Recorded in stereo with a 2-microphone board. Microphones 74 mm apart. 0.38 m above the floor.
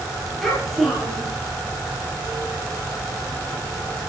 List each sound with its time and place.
0.4 s a child speaking: centre (ahead or behind), 6 m